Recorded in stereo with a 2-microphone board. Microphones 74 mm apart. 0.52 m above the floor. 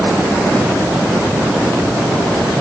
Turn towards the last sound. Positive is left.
No sound to turn to.